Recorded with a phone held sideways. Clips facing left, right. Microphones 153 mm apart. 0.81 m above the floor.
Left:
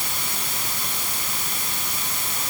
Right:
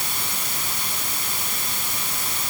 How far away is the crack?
I don't hear a crack.